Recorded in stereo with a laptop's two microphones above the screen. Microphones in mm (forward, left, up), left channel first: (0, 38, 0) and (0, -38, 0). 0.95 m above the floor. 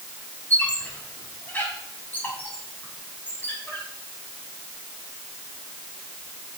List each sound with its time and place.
0.5 s a squeak: 25° left (ahead or behind), 5 m